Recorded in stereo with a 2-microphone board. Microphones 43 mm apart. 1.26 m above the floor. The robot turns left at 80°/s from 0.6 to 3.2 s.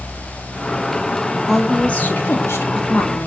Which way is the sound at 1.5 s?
175° right.